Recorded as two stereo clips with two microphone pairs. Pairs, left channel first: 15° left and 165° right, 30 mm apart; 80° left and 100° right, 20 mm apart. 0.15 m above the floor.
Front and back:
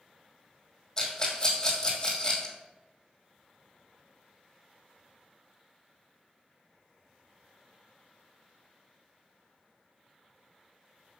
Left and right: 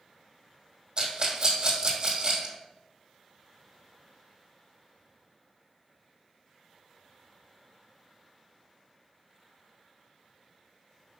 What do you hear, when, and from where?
1.0 s a rattle: 55° right, 2 m